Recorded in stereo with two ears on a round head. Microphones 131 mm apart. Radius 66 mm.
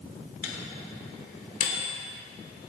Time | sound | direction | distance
0.4 | a microwave | 55° left (ahead or behind) | 3 m